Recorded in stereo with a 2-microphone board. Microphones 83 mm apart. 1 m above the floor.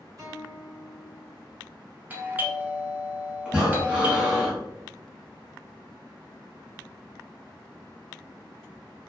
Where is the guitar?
50° right (ahead or behind), 1.2 m.